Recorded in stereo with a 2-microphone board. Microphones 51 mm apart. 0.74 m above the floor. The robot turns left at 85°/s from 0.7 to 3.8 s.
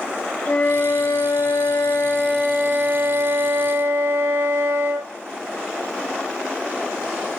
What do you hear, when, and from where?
0.5 s a flute: 150° left, 3.5 m; by 5.1 s 115° right, 3.5 m